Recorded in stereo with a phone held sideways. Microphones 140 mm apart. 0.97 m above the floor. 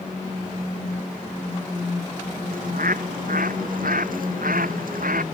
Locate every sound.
2.5 s a bird: 85° right